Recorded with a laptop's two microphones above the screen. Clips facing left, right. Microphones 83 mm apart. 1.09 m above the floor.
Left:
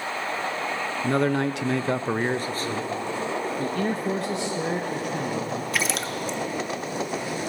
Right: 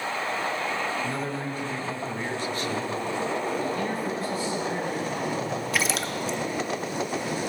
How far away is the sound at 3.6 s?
About 1.2 m.